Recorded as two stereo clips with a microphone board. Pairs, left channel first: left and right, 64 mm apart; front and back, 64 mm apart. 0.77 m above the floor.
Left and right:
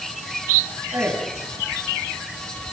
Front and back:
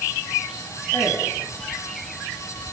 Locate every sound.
0.9 s a man speaking: 50° right, 9 m